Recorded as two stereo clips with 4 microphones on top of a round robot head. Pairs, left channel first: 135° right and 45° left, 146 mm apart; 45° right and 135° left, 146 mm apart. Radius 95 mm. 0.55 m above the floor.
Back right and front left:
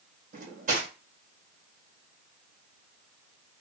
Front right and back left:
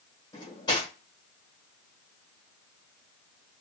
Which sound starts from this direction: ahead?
Cutlery clinking, at 0.3 s.